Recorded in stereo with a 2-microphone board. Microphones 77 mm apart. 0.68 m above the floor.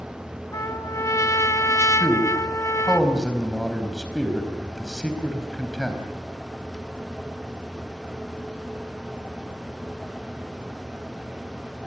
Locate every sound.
0.5 s a trumpet: 40° left (ahead or behind), 1.1 m
2.0 s a man speaking: 5° left (ahead or behind), 4.5 m